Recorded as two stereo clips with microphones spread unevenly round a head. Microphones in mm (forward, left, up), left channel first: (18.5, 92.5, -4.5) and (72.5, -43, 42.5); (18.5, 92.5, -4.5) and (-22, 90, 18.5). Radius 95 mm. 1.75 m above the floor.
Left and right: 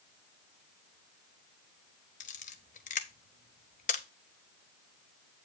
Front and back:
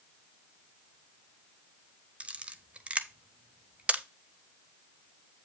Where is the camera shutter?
170° left, 0.6 m.